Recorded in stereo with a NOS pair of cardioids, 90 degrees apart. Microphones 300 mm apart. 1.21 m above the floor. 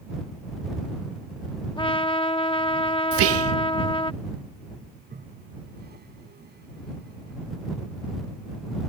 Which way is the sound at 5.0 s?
30° right.